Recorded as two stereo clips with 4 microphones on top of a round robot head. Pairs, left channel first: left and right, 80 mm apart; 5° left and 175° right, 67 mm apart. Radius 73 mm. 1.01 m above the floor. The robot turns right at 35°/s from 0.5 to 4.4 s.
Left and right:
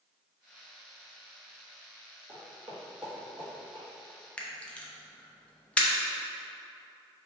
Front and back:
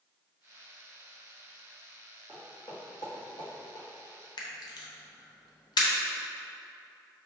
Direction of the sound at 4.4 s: 15° left.